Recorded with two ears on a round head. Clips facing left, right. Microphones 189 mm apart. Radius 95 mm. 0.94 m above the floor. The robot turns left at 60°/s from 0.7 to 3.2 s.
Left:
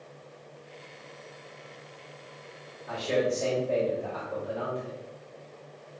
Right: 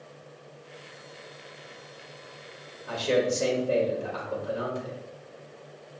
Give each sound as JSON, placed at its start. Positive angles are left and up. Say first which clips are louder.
{"t": 2.9, "sound": "a man speaking", "louder": "right 2 dB", "side_deg": -65, "distance_m": 1.6}